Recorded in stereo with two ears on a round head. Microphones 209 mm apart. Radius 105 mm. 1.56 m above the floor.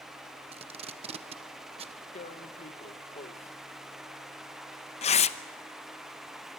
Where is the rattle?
I don't hear a rattle.